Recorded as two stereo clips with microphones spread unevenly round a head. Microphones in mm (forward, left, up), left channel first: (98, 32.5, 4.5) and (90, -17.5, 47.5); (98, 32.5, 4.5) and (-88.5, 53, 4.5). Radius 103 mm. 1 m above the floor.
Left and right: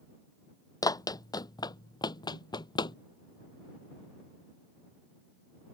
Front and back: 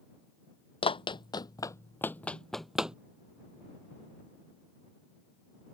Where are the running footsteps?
55° left; by 3.0 s 90° left.